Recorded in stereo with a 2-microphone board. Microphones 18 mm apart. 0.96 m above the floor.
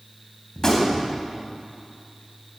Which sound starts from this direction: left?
A gunshot, at 0.6 s.